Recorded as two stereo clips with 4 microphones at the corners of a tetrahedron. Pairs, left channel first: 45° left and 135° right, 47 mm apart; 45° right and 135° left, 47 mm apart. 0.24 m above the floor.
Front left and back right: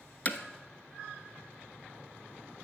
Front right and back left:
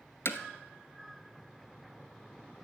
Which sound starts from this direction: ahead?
Hammering, at 0.2 s.